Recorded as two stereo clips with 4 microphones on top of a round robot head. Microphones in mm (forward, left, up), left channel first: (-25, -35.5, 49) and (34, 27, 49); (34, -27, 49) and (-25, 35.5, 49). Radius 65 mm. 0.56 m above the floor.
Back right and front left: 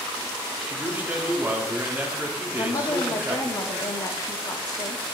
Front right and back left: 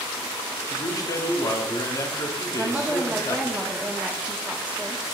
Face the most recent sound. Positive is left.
turn(degrees=-155)